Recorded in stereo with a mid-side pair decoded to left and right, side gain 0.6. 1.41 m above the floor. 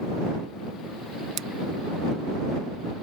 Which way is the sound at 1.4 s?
55° right.